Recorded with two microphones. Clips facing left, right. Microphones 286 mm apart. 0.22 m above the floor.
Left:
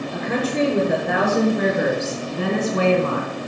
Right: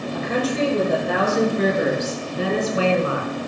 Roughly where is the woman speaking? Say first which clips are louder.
Even; left.